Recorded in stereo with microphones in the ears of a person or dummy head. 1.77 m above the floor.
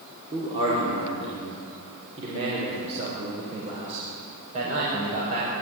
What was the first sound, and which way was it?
A man speaking, 30° right (ahead or behind).